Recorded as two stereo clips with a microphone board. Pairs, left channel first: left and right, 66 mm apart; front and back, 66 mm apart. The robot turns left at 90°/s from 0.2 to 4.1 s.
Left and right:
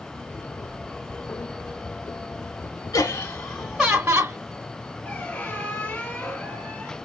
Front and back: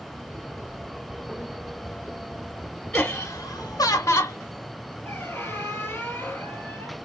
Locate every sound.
2.9 s laughter: 80° left, 0.8 m; by 4.4 s 25° right, 0.8 m
5.0 s a squeak: 35° left, 1.5 m